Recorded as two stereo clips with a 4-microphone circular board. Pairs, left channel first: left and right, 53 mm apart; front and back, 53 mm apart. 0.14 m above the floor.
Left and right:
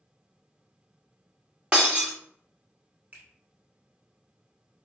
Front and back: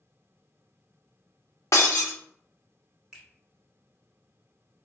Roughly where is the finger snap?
Right.